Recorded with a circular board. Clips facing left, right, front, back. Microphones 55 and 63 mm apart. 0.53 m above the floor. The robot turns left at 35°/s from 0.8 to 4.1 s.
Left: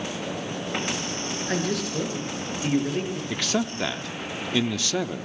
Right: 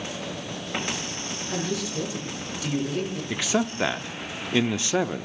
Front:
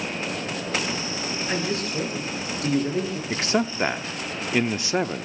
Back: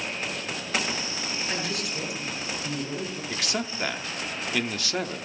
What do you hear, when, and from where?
1.5 s a man speaking: 70° left, 8.5 m; by 3.2 s 10° left, 8.5 m
3.3 s a man speaking: 15° right, 0.7 m; by 5.3 s 40° right, 0.7 m